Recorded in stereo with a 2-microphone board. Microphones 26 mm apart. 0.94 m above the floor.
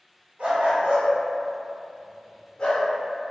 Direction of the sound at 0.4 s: 60° right (ahead or behind).